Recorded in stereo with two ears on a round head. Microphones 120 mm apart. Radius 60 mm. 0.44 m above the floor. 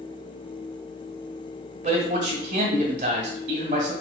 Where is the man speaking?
55° right (ahead or behind), 1.7 m.